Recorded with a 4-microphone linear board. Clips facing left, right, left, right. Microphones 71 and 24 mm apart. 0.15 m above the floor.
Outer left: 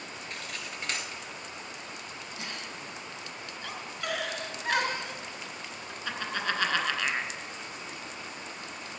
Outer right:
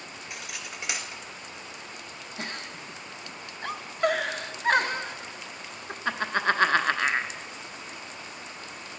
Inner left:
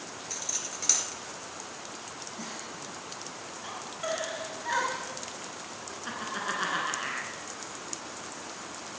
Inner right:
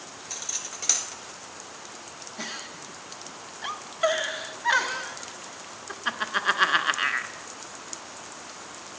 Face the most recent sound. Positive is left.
turn(degrees=-40)  # may be behind; listen again after turning